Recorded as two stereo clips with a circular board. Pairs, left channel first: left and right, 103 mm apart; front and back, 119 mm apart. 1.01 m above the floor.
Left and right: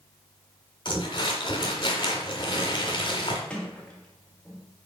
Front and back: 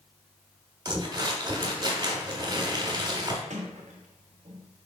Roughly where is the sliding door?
Behind.